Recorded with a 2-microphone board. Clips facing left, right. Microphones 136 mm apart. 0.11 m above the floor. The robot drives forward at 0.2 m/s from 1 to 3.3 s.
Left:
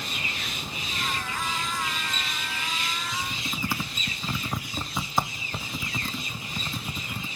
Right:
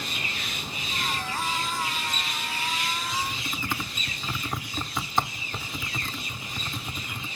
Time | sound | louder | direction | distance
3.1 | typing on a keyboard | right 2 dB | 10° left (ahead or behind) | 0.6 m